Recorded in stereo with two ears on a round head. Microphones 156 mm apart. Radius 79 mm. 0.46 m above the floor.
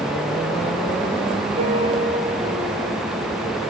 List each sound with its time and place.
1.6 s a piano: 30° right (ahead or behind), 5 m